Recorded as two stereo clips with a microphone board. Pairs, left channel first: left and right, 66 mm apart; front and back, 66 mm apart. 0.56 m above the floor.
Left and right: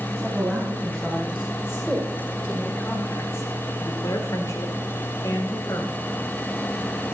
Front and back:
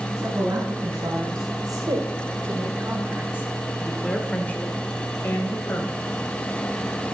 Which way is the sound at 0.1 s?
170° right.